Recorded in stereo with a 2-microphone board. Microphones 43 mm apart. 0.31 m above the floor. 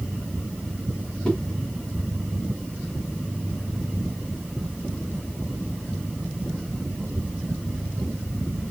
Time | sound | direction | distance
1.2 | a whoosh | 15° left (ahead or behind) | 1.0 m